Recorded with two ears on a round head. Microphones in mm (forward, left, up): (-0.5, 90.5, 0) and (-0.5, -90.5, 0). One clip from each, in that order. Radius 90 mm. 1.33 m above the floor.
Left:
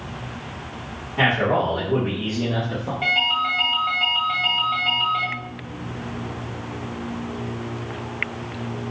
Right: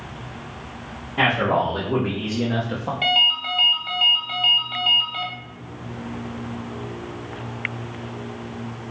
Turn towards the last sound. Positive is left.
turn(degrees=-40)  # may be behind; listen again after turning